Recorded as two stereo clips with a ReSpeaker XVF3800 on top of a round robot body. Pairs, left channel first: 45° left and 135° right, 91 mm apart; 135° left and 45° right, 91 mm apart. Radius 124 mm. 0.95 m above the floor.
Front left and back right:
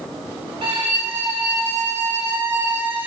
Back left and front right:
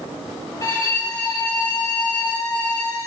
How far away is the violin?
About 4.5 m.